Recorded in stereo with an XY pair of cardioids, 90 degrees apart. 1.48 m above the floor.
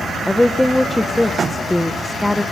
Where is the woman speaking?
15° left, 1.2 m.